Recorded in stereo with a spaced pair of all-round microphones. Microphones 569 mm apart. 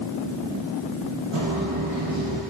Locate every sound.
1.3 s footsteps: 60° right (ahead or behind), 2.5 m; by 2.4 s 65° right (ahead or behind), 3 m